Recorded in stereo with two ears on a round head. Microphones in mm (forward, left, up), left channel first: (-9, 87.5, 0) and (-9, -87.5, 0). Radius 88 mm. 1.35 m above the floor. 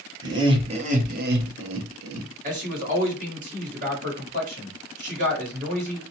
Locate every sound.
0.2 s laughter: 20° right (ahead or behind), 1.1 m; by 2.3 s 80° right, 0.8 m
2.4 s a man speaking: 40° right (ahead or behind), 1.4 m